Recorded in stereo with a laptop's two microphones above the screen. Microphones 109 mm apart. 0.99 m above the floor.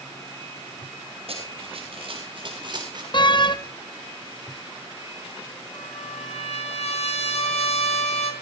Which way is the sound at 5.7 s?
70° left (ahead or behind).